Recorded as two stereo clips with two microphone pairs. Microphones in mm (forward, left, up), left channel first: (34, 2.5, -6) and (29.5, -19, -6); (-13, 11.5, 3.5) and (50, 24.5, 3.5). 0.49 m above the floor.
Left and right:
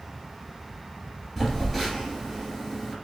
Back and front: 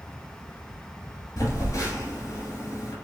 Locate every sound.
1.4 s a phone buzzing: 155° left, 1.3 m